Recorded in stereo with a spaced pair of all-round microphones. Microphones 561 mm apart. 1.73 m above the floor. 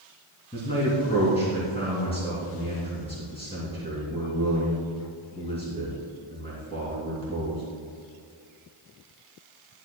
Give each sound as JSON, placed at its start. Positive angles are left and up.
{"t": 0.5, "sound": "a man speaking", "side_deg": 10, "distance_m": 2.5}